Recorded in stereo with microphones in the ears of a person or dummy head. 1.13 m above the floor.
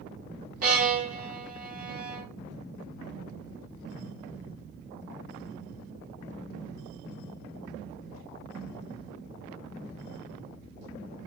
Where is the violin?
45° right (ahead or behind), 1.2 m.